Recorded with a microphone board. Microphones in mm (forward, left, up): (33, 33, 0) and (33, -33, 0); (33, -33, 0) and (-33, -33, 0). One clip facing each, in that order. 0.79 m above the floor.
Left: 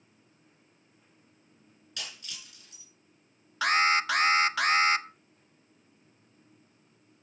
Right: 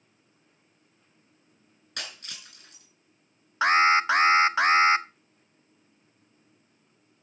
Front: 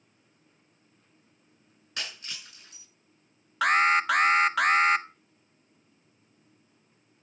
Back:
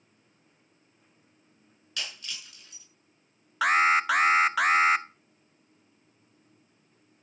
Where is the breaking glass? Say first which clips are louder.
Right 3 dB, even; 60° right, 6.5 m.